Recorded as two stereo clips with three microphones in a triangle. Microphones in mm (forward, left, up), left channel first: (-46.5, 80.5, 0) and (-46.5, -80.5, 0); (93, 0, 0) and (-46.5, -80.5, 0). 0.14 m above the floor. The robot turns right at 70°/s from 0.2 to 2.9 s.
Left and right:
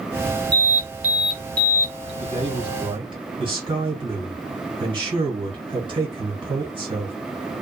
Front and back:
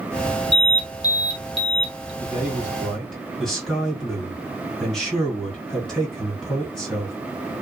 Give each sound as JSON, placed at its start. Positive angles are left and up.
{"t": 0.5, "sound": "an alarm", "azimuth_deg": -55, "distance_m": 1.1}
{"t": 2.2, "sound": "a man speaking", "azimuth_deg": -105, "distance_m": 2.0}